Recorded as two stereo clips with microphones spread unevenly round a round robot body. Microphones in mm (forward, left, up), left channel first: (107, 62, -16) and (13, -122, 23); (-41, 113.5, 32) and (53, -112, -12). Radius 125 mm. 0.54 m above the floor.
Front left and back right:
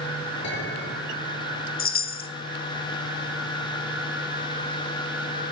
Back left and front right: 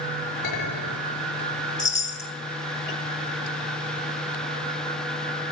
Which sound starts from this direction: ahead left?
A chime, at 1.8 s.